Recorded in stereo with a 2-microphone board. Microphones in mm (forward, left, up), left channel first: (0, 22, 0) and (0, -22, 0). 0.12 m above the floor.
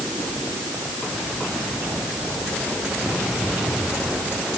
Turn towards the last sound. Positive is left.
No sound to turn to.